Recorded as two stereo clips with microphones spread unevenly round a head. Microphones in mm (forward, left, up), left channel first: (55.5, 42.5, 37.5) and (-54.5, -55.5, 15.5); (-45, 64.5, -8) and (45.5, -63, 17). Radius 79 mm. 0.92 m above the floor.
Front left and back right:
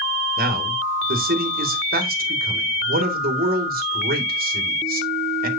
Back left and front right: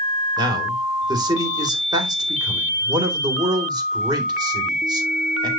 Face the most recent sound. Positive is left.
turn(degrees=-120)